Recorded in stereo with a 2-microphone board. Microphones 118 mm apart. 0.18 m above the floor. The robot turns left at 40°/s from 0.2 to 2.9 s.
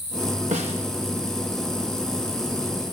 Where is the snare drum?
85° right, 4 m; by 0.8 s 75° right (ahead or behind), 4 m.